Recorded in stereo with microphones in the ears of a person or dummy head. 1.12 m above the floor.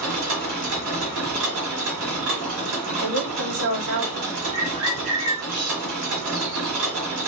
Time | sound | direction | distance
0.0 | a machine running | 70° right (ahead or behind) | 1.5 m
3.0 | a woman speaking | 65° right (ahead or behind) | 1.0 m
4.5 | a bird | 80° right | 2 m